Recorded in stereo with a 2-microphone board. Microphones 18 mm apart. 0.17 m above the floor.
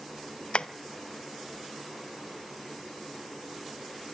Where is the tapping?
80° left, 0.6 m.